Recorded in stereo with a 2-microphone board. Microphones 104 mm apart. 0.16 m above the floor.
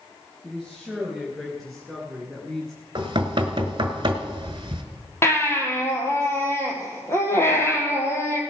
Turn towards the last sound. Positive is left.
turn(degrees=25)  # may be behind; listen again after turning